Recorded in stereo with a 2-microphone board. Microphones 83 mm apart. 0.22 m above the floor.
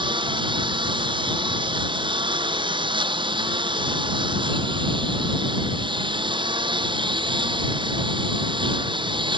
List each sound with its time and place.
0.0 s a lawn mower: 75° right (ahead or behind)